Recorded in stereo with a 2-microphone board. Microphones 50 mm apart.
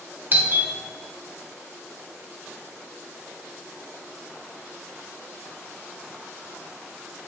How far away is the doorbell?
About 1.1 m.